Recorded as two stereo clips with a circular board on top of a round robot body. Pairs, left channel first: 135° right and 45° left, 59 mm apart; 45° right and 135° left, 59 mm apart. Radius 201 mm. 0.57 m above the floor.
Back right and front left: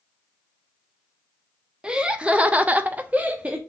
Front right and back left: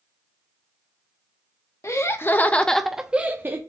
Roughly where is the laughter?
Ahead right.